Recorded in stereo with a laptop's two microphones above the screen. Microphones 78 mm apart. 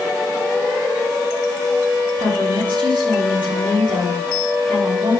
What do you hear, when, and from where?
2.2 s a woman speaking: 80° right, 7 m